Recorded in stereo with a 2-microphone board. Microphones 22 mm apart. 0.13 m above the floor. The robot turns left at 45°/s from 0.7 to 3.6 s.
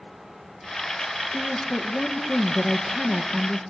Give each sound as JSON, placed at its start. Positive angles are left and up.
{"t": 1.3, "sound": "a woman speaking", "azimuth_deg": 60, "distance_m": 2.0}